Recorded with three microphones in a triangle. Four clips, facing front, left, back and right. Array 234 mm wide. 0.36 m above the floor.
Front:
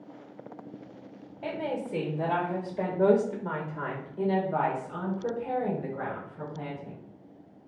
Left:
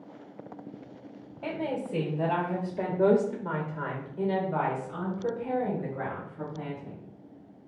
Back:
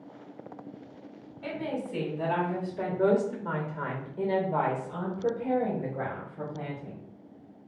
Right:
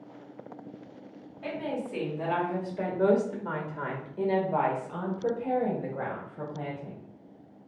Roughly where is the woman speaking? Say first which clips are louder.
Left 1 dB, front 1 dB; ahead left.